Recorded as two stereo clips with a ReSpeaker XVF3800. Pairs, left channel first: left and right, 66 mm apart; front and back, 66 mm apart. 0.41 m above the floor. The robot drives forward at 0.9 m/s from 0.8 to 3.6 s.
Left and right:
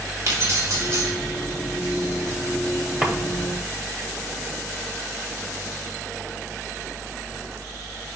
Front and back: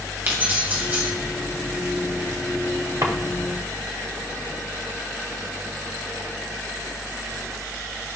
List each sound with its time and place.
0.3 s keys jangling: 120° right, 2 m; by 1.1 s 130° right, 2 m
3.0 s a drawer: 170° right, 1.1 m